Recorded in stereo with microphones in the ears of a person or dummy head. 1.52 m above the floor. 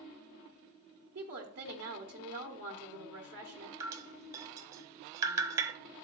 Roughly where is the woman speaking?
Right.